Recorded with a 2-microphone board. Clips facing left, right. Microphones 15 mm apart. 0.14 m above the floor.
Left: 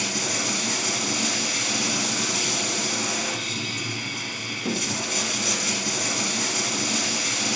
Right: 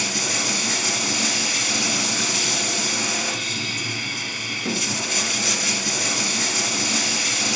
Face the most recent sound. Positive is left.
turn(degrees=-30)  # may be behind; listen again after turning